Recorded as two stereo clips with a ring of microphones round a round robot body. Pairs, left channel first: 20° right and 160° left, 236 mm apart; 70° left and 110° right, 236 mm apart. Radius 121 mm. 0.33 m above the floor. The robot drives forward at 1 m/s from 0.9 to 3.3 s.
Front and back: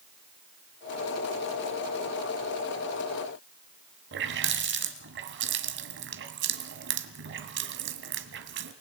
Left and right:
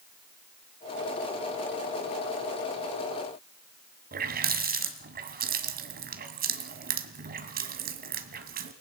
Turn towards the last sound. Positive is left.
turn(degrees=-165)